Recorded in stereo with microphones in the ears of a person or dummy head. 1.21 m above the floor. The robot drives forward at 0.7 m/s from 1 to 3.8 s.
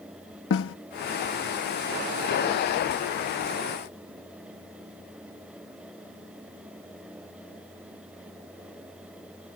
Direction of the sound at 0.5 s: 65° left (ahead or behind).